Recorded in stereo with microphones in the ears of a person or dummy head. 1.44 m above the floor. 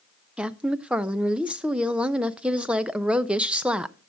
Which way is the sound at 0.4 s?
10° right (ahead or behind).